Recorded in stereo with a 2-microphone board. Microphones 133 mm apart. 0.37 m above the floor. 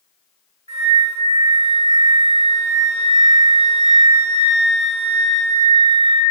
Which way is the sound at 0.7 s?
55° right (ahead or behind).